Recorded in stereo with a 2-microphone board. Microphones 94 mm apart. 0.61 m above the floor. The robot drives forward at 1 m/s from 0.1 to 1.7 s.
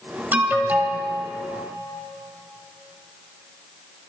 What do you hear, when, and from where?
0.3 s an alarm: 20° right (ahead or behind), 1.6 m